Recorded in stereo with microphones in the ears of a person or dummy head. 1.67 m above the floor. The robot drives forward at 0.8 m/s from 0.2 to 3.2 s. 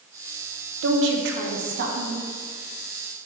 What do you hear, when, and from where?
0.8 s a woman speaking: 75° right (ahead or behind), 1.3 m; by 2.2 s 50° right (ahead or behind), 1.7 m